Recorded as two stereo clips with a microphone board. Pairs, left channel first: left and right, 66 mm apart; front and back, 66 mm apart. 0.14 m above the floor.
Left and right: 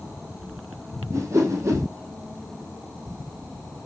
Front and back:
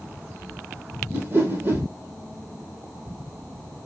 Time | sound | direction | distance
1.1 | a whoosh | 125° right | 1.4 m